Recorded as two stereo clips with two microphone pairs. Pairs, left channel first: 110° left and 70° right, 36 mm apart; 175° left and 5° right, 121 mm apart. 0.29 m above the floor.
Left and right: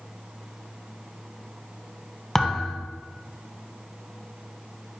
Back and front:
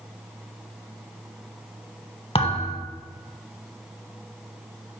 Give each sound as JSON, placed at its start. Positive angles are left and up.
{"t": 2.4, "sound": "a thud", "azimuth_deg": -175, "distance_m": 0.7}